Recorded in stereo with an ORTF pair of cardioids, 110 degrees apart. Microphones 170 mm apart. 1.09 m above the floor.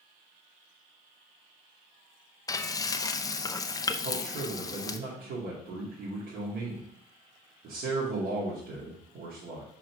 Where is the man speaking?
65° right, 2.5 m.